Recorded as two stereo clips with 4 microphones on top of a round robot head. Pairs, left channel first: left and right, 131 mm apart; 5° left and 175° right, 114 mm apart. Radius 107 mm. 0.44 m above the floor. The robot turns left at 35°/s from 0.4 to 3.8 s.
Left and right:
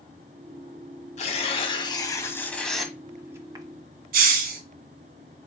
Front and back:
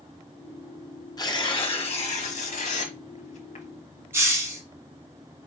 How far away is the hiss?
About 0.6 m.